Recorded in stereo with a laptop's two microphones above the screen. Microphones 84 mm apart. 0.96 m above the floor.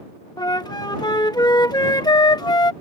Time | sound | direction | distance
0.4 | a flute | 55° left (ahead or behind) | ?